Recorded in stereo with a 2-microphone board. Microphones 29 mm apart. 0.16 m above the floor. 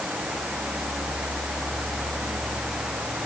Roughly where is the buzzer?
I don't hear a buzzer.